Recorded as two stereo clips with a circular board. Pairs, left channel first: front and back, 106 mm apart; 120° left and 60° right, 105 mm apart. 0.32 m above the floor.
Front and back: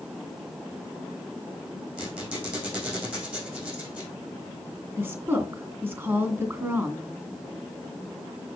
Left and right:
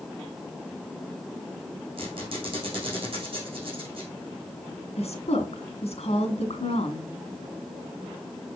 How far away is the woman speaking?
About 2.5 m.